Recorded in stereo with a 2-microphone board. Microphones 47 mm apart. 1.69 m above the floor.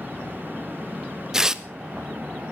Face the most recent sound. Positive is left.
turn(degrees=-15)  # may be behind; listen again after turning